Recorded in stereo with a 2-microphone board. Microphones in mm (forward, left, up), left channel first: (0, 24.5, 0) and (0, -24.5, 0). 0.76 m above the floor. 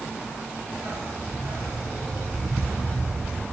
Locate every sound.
0.7 s a dog barking: 70° right (ahead or behind), 3 m; by 3.4 s 45° right (ahead or behind), 3.5 m